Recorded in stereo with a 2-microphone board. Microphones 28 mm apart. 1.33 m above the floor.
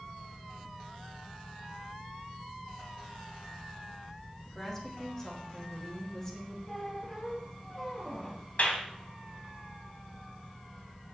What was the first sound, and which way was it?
A woman speaking, 20° left (ahead or behind).